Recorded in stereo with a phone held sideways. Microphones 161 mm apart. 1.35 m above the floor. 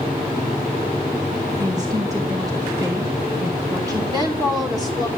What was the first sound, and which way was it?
A woman speaking, 20° right (ahead or behind).